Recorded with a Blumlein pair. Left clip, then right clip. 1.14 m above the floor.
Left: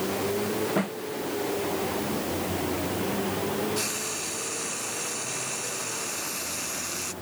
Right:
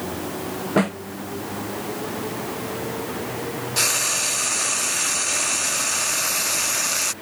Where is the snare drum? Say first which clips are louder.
Right 7 dB; 65° right.